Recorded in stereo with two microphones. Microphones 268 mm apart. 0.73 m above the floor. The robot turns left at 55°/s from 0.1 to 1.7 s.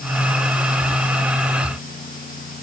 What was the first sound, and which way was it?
Only background noise.